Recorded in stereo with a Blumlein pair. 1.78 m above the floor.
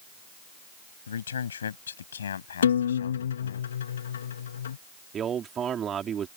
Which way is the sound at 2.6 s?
65° left.